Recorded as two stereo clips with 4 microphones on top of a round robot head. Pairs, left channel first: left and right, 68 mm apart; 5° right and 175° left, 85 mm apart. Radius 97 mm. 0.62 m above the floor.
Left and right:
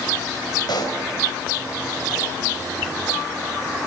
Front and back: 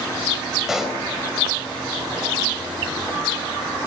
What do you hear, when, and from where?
0.7 s a pop: 90° left, 4 m